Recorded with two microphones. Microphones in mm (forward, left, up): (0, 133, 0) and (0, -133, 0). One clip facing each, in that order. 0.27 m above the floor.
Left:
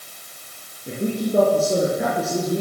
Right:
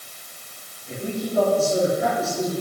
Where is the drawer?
No drawer in this recording.